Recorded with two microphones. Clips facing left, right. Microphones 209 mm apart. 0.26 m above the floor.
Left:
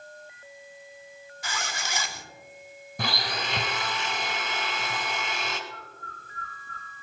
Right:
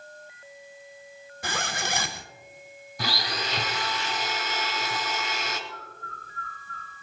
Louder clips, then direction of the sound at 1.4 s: Right 5 dB; 55° right (ahead or behind).